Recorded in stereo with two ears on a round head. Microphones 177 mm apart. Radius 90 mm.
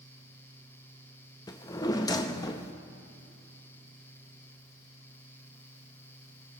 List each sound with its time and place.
1.5 s a drawer: 20° left (ahead or behind), 0.6 m